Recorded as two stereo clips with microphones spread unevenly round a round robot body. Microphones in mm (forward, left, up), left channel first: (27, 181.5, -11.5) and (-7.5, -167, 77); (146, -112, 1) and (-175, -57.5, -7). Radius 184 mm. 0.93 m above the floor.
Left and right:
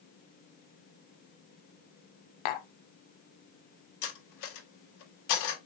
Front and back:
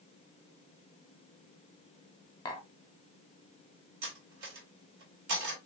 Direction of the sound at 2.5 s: 65° left.